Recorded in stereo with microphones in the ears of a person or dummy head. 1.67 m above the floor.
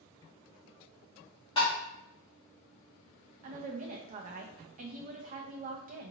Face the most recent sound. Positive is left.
turn(degrees=-45)  # may be behind; listen again after turning